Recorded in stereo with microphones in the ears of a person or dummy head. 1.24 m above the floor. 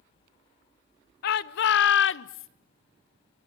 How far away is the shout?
About 1.4 m.